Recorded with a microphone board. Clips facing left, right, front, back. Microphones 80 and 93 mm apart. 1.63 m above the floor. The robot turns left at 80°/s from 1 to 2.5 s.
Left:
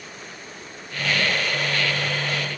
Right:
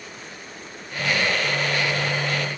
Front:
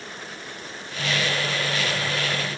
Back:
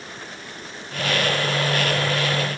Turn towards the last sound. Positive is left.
No sound to turn to.